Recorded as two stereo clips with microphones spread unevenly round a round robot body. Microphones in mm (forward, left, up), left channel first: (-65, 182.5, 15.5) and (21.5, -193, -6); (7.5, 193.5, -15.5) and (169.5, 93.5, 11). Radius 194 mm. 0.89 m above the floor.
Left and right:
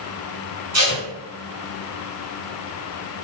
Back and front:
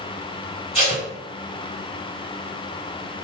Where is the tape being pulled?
130° right, 1.3 m.